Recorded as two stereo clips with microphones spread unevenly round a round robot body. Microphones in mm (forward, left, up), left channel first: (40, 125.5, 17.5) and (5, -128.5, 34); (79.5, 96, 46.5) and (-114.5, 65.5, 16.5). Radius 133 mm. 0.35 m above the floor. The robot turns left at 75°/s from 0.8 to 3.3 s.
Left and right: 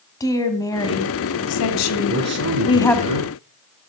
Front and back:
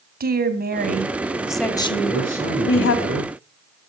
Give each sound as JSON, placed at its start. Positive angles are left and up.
{"t": 0.2, "sound": "a woman speaking", "azimuth_deg": 160, "distance_m": 2.0}
{"t": 2.1, "sound": "a man speaking", "azimuth_deg": -35, "distance_m": 5.5}